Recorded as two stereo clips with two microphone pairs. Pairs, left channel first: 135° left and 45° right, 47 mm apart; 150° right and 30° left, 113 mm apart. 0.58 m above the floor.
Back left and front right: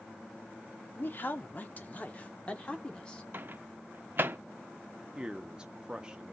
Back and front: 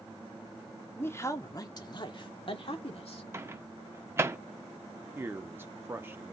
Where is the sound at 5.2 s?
5° right, 0.7 m.